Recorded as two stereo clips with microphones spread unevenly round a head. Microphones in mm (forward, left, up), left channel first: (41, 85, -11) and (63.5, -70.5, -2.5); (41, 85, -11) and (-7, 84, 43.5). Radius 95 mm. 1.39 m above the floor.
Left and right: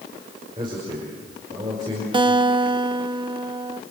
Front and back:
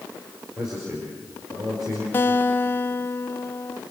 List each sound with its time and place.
0.6 s a man speaking: 150° right, 5 m
2.1 s a guitar: 20° right, 1.0 m